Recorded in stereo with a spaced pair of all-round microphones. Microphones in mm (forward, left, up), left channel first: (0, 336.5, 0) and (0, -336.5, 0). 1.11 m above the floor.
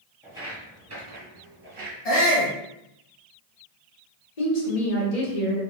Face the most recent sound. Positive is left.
turn(degrees=65)  # may be behind; listen again after turning